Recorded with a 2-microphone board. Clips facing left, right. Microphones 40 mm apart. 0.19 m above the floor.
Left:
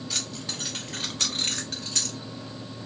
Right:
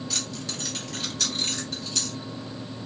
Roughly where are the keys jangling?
Centre.